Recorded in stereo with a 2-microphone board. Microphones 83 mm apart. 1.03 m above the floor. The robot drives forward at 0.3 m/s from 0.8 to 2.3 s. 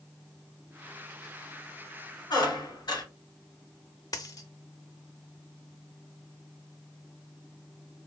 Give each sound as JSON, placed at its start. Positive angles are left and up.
{"t": 2.3, "sound": "a squeak", "side_deg": 50, "distance_m": 1.7}
{"t": 4.1, "sound": "a dropped coin", "side_deg": 45, "distance_m": 0.6}